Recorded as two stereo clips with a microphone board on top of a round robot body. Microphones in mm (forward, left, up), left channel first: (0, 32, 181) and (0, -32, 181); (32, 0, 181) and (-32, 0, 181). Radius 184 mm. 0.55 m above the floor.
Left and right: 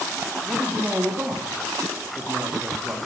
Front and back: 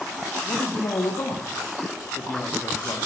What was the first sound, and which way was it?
A man speaking, 25° right.